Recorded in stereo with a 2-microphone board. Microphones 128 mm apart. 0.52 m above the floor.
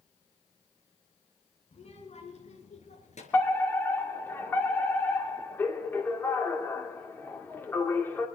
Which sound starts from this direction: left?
A child speaking, at 1.7 s.